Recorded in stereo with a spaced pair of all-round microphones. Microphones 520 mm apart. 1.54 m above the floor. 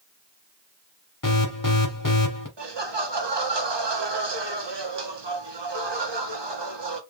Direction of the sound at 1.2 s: 35° left (ahead or behind).